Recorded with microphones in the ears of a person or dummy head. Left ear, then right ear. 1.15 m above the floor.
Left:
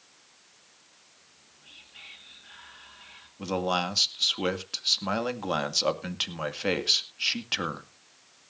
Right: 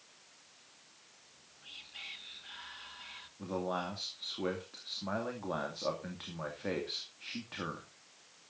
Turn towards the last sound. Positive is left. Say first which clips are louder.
# left 9 dB
turn(degrees=70)  # may be behind; listen again after turning